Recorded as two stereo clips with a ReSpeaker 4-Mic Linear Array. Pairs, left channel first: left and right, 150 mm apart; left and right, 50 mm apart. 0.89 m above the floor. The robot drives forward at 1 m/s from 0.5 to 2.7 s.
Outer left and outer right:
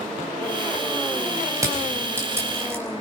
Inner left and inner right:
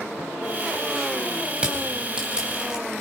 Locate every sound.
1.6 s crushing: 20° right (ahead or behind), 4 m; by 2.8 s 15° right (ahead or behind), 5 m